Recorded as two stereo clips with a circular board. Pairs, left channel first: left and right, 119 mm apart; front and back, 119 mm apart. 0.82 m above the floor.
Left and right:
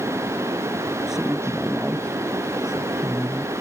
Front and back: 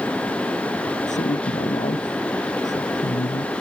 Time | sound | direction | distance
1.1 | a woman speaking | 5° right | ?